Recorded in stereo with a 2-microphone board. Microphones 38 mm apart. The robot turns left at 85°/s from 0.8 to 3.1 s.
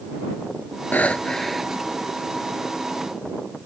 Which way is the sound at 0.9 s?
50° left.